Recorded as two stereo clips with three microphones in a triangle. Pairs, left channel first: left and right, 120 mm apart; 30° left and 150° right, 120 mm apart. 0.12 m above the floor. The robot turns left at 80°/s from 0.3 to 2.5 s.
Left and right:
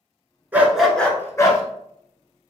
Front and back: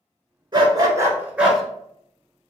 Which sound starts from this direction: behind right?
A dog barking, at 0.5 s.